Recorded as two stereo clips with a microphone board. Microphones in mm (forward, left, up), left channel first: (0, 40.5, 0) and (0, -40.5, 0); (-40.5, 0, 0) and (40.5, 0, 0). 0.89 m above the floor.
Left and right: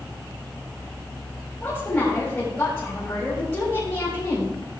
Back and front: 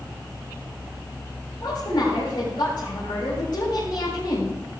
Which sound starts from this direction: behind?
A woman speaking, at 1.6 s.